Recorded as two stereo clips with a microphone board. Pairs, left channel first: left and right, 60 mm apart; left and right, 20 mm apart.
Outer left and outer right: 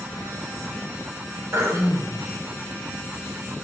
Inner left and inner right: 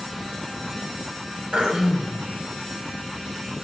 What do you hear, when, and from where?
1.5 s throat clearing: 50° right (ahead or behind), 1.5 m